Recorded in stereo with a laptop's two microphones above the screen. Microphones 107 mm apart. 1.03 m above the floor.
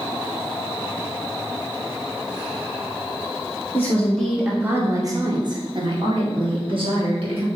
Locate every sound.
3.7 s a woman speaking: 20° left (ahead or behind), 0.7 m; by 7.5 s 55° right (ahead or behind), 1.7 m